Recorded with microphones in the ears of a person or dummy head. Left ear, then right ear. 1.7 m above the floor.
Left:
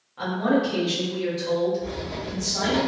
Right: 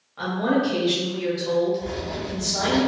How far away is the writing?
About 1.7 m.